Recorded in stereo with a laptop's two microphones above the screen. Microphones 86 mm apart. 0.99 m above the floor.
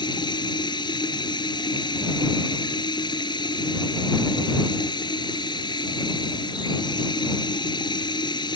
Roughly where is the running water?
Left.